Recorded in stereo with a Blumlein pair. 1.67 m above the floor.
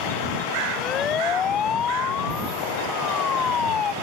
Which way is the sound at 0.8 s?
25° left.